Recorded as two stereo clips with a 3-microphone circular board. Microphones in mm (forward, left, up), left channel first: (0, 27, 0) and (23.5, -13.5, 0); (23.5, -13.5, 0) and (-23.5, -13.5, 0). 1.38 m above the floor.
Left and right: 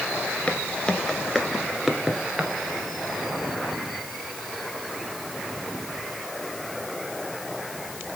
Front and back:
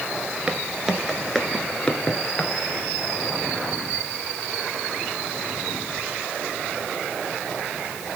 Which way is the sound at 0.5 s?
135° left.